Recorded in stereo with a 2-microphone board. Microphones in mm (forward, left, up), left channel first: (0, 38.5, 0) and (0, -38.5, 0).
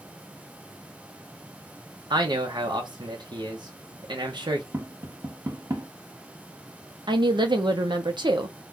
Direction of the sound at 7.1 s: 80° right.